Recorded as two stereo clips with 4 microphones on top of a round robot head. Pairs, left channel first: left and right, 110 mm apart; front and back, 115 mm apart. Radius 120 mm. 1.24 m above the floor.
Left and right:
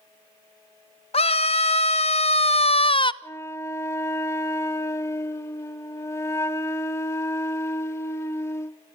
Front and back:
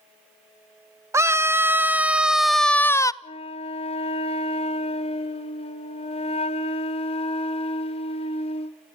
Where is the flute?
30° left, 0.8 m.